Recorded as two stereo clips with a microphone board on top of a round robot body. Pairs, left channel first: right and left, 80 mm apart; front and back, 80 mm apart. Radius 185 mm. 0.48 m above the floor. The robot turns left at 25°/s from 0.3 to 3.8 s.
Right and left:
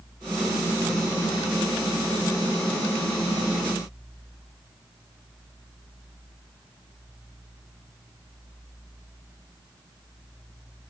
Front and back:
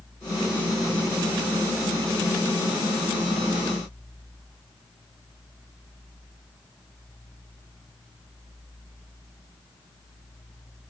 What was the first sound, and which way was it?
Only background noise.